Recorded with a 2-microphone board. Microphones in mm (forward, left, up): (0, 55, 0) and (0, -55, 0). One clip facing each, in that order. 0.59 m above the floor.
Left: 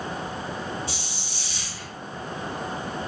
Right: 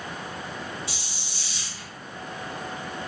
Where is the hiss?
60° left (ahead or behind), 1.2 m.